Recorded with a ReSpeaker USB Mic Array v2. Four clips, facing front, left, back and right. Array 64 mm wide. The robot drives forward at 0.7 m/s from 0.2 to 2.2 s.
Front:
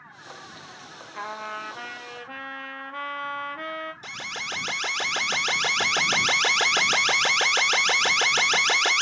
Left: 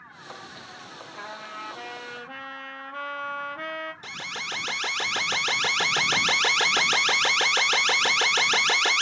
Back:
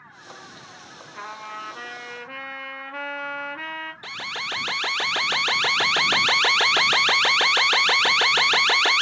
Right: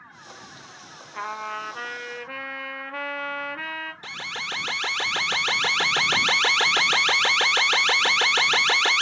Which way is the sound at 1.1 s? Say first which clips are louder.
Right 8 dB, front 2 dB; 85° right.